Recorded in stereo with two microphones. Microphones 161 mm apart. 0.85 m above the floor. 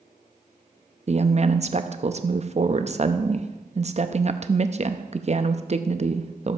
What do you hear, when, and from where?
1.1 s a woman speaking: 45° right (ahead or behind), 0.7 m